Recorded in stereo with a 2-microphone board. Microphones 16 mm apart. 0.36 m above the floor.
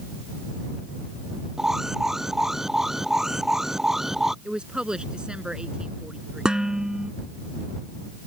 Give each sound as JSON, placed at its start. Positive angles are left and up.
{"t": 1.6, "sound": "an alarm", "side_deg": -25}
{"t": 4.5, "sound": "a woman speaking", "side_deg": -75}
{"t": 6.5, "sound": "dishes clattering", "side_deg": -60}